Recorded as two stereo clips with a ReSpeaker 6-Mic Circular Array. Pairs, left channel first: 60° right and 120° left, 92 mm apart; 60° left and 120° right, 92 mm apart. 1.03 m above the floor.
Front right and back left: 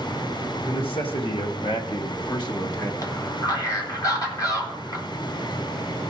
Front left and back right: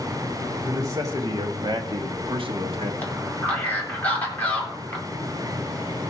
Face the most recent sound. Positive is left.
turn(degrees=-10)